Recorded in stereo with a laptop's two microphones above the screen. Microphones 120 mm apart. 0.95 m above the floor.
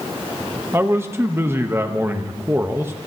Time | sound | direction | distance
0.7 | a man speaking | 20° right (ahead or behind) | 0.7 m